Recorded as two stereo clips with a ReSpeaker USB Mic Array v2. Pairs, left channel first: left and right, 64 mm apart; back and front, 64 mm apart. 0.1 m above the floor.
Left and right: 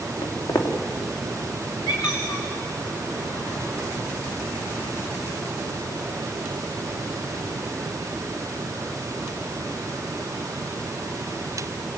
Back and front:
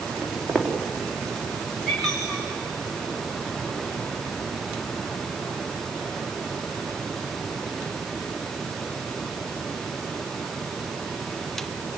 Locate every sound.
0.2 s footsteps: 90° left, 3 m
1.9 s a squeak: 90° left, 5.5 m